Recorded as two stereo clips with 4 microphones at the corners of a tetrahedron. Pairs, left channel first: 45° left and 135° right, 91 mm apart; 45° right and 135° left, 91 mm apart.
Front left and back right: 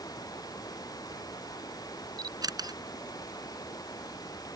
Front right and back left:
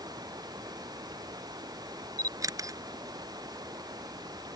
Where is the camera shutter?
175° right.